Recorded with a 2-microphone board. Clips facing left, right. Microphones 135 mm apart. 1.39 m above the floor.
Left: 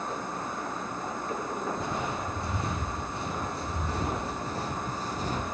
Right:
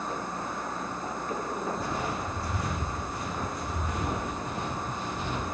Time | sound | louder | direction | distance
1.8 | footsteps | even | 20° left (ahead or behind) | 5.5 m